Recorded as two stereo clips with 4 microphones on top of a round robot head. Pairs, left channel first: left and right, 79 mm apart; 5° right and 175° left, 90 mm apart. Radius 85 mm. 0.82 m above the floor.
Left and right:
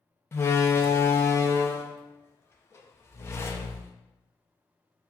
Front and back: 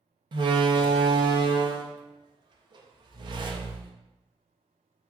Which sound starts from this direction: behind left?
A door slam, at 0.3 s.